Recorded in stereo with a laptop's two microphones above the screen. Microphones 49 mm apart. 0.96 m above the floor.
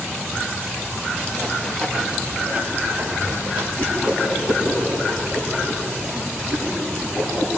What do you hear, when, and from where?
1.4 s running footsteps: 35° left (ahead or behind), 1.4 m; by 3.7 s 45° right (ahead or behind), 2.5 m
3.8 s a whoosh: 25° left (ahead or behind), 9.5 m